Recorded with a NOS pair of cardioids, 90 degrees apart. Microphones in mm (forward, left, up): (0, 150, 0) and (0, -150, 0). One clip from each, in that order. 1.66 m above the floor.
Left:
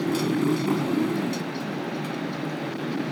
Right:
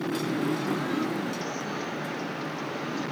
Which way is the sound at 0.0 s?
40° left.